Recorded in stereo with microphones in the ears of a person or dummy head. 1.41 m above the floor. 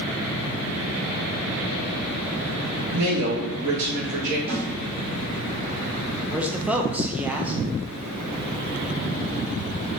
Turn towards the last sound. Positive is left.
turn(degrees=-10)  # may be behind; listen again after turning